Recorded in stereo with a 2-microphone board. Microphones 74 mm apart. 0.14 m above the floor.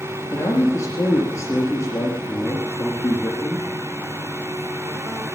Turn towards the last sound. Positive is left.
turn(degrees=40)  # may be behind; listen again after turning